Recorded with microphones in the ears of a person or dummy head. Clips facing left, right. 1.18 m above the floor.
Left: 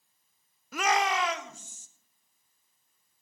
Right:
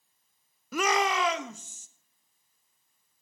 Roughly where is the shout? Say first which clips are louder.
Right 1 dB; right.